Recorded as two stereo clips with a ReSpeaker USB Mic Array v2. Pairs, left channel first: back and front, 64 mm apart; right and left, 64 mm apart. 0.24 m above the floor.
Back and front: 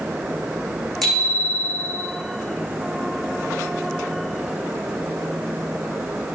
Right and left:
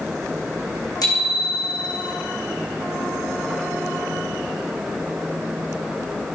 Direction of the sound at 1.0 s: 95° right.